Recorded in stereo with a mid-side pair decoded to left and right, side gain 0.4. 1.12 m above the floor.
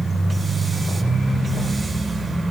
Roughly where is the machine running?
Ahead right.